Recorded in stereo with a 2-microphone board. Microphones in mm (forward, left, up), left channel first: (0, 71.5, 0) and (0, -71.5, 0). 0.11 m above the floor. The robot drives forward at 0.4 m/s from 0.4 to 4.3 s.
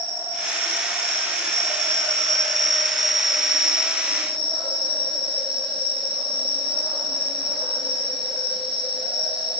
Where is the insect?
15° right (ahead or behind), 2.5 m; by 9.6 s 40° right (ahead or behind), 1.0 m.